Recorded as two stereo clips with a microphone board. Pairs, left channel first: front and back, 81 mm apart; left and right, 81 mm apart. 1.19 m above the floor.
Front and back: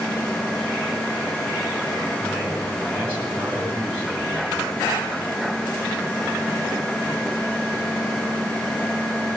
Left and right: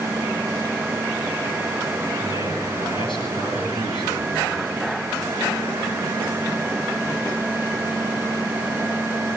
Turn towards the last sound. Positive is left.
turn(degrees=80)